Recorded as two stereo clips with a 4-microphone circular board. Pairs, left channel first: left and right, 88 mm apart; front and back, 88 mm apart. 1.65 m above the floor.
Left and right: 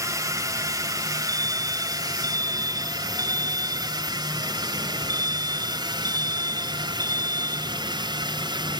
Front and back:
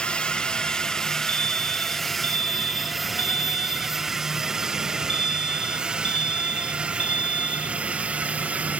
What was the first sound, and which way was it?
A drone, 70° right.